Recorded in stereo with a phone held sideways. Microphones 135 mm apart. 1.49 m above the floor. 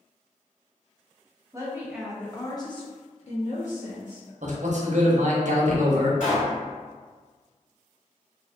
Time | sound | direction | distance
1.5 | a woman speaking | 25° right (ahead or behind) | 0.7 m
4.4 | a man speaking | 60° right (ahead or behind) | 0.7 m
6.2 | a pop | 65° left (ahead or behind) | 1.9 m